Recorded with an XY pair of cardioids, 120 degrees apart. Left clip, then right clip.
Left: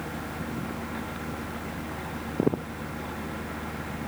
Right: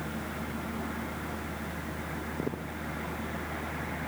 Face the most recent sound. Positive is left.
turn(degrees=40)